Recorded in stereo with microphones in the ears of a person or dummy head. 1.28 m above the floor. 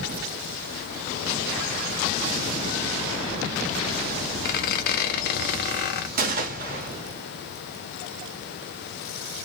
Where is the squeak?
55° left (ahead or behind), 0.6 m.